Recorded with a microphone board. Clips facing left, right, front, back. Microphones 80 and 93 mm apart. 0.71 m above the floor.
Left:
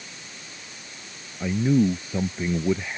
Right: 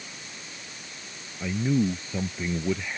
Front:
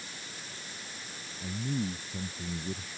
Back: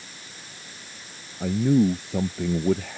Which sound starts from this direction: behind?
A man speaking, at 1.4 s.